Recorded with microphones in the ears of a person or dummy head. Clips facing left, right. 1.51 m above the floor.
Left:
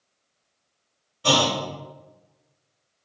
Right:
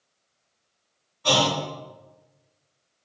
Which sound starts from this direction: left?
A clunk, at 1.2 s.